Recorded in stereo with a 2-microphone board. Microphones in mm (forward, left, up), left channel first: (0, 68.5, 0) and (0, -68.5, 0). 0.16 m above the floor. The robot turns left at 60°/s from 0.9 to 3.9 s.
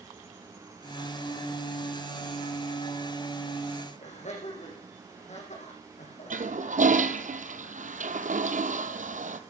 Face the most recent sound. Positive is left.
turn(degrees=-65)  # may be behind; listen again after turning